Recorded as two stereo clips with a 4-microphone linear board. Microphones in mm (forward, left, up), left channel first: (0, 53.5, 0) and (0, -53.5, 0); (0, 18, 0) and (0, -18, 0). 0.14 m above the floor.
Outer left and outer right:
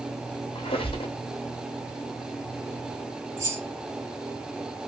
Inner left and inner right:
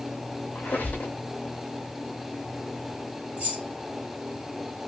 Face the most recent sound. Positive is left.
turn(degrees=-30)  # may be behind; listen again after turning